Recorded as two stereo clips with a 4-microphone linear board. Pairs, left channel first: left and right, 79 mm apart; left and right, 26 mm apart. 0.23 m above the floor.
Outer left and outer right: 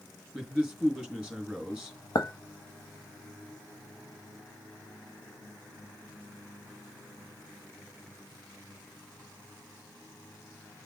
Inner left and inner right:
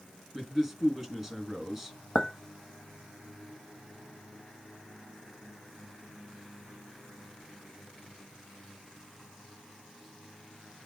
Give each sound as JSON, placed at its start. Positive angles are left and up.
{"t": 0.3, "sound": "a man speaking", "side_deg": 0, "distance_m": 4.0}
{"t": 2.1, "sound": "a clink", "side_deg": 55, "distance_m": 1.0}